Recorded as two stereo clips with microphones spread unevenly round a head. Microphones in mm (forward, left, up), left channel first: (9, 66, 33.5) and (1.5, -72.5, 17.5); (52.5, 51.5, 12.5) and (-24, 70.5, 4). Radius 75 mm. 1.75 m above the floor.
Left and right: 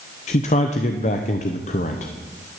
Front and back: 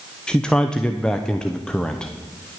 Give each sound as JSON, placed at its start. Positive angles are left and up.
{"t": 0.3, "sound": "a man speaking", "azimuth_deg": 60, "distance_m": 0.8}